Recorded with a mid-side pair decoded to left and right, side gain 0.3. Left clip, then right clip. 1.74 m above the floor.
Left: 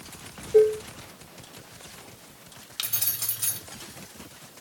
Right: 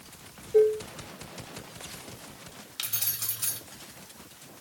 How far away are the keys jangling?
About 4 m.